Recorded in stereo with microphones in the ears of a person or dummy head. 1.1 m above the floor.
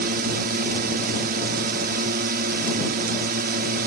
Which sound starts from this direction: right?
A drone, at 0.0 s.